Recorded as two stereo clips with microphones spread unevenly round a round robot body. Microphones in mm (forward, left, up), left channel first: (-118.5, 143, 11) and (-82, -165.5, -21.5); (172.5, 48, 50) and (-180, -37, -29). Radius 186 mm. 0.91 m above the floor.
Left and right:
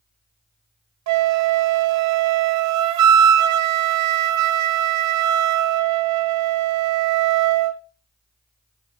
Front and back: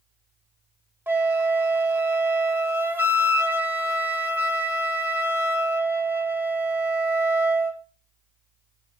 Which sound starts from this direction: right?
A flute, at 1.1 s.